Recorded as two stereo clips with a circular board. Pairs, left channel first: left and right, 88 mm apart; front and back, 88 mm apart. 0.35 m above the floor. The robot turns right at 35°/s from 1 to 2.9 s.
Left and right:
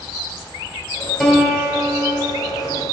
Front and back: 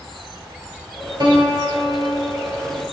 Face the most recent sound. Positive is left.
turn(degrees=-125)